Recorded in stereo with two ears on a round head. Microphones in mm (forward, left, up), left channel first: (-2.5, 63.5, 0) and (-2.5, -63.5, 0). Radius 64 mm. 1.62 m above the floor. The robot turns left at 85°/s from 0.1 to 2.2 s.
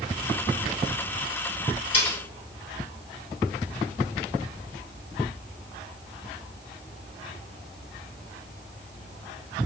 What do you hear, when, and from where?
1.9 s cutlery clinking: 40° left (ahead or behind), 1.8 m; by 2.2 s 55° left (ahead or behind), 1.8 m